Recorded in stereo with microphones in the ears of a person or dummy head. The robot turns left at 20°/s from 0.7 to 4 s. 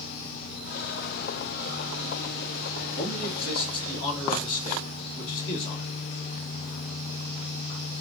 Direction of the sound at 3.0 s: 70° left (ahead or behind).